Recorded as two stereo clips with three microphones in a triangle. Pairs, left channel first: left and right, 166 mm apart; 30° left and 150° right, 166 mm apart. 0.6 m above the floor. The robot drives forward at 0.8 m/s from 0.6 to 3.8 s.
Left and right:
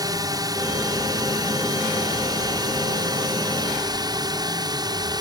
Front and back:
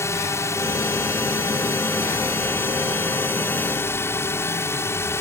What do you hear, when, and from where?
0.0 s a drone: 35° right